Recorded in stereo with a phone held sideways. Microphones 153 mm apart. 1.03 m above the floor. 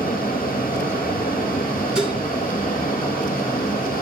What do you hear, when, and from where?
0.0 s a fan: 75° left (ahead or behind), 1.7 m
1.9 s dishes clattering: 5° right (ahead or behind), 2.5 m